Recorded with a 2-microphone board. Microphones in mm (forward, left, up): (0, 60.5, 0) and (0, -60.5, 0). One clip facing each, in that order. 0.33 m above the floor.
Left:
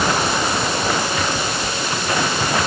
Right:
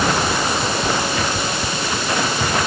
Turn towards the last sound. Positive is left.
No sound to turn to.